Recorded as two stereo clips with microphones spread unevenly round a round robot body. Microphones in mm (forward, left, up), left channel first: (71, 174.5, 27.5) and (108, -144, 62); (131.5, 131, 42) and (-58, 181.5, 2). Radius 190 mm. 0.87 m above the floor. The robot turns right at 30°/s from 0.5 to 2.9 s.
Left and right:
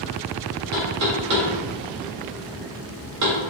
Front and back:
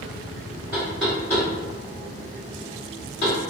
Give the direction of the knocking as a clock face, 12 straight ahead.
4 o'clock.